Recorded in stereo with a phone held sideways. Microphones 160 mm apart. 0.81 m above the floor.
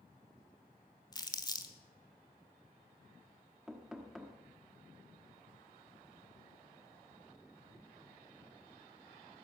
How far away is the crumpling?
About 1.4 m.